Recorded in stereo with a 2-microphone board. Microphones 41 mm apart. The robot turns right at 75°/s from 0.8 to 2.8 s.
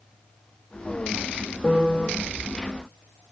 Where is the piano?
25° left, 0.7 m; by 2.1 s 60° left, 0.7 m.